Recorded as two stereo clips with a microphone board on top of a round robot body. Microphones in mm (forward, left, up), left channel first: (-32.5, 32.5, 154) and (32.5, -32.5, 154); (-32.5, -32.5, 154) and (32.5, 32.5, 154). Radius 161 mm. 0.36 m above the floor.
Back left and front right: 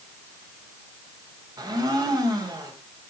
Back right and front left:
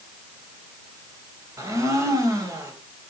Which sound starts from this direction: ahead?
A blender, at 1.6 s.